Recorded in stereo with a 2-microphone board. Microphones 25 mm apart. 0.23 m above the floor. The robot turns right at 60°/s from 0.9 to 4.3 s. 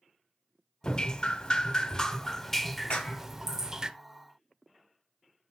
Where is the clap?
50° left (ahead or behind), 1.8 m; by 3.2 s 55° left (ahead or behind), 1.8 m.